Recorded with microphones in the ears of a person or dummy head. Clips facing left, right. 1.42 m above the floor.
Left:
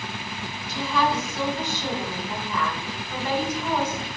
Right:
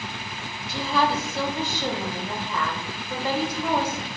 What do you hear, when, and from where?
0.7 s a woman speaking: 35° right (ahead or behind), 2.5 m